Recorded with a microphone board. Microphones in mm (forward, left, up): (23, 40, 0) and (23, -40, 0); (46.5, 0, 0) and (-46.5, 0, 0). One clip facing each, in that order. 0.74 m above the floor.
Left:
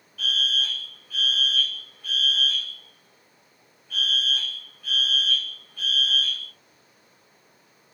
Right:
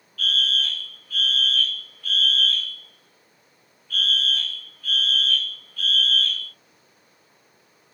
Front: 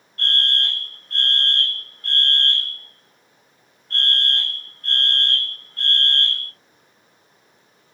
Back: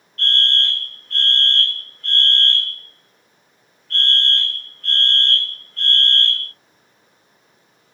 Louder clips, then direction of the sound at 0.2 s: Right 2 dB, back 2 dB; 50° left.